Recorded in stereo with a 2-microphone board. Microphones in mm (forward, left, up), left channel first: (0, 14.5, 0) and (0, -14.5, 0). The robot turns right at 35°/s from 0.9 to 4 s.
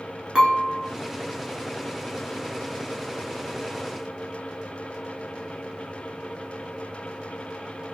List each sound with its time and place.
0.3 s dishes clattering: 25° right (ahead or behind), 1.0 m